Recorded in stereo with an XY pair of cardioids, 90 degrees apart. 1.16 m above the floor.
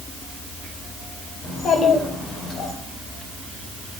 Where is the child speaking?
70° left, 3.5 m; by 2.7 s 80° left, 5 m.